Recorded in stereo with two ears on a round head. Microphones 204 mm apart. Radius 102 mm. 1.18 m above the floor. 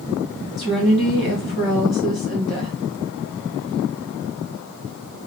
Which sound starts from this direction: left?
A woman speaking, at 0.6 s.